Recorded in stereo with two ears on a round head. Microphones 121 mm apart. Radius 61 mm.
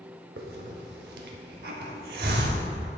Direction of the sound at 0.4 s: 75° right (ahead or behind).